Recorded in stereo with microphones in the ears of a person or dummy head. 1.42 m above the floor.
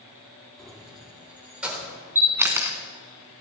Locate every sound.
0.6 s keys jangling: centre (ahead or behind), 2 m; by 1.9 s 10° right (ahead or behind), 4 m
2.1 s a camera shutter: 10° right (ahead or behind), 2.0 m